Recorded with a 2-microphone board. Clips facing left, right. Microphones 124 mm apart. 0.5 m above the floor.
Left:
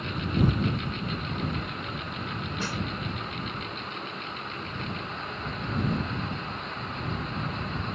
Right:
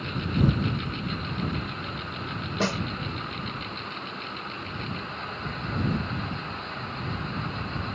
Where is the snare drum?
70° right (ahead or behind).